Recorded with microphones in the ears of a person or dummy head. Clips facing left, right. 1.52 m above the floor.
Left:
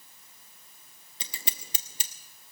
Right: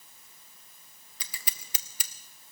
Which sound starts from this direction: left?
Scissors, at 1.2 s.